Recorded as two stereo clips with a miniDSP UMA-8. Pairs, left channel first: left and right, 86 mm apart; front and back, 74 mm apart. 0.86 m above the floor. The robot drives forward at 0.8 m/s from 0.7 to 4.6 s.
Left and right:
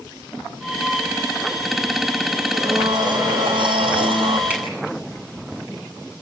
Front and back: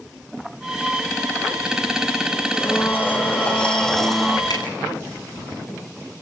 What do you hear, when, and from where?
2.5 s a blender: 60° right, 3 m; by 4.4 s 90° right, 2.5 m
4.5 s a finger snap: 15° right, 8.5 m